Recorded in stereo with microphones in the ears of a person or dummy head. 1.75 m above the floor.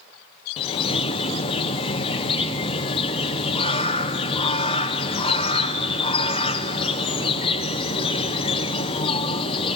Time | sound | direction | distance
0.6 | a bird | 30° left (ahead or behind) | 0.9 m